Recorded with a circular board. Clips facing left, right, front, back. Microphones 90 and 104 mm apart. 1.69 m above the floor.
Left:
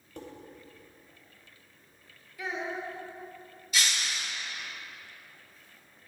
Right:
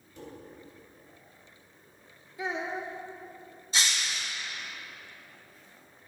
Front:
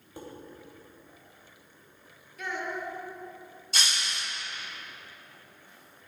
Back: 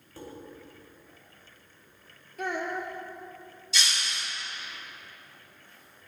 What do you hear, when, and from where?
0.2 s dishes clattering: 70° left, 3 m
2.4 s a child speaking: 150° right, 1.7 m
3.7 s breaking glass: 35° right, 3 m